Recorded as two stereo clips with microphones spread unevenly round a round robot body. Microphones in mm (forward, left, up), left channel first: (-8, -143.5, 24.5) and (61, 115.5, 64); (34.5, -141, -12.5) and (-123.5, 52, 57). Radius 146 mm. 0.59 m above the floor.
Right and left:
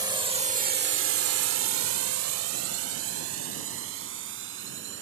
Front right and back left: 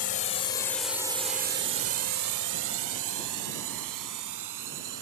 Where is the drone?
5° right; by 5.0 s 125° left.